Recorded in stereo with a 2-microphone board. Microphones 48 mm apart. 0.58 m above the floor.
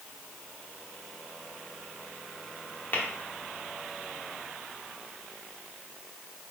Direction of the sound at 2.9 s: 50° left (ahead or behind).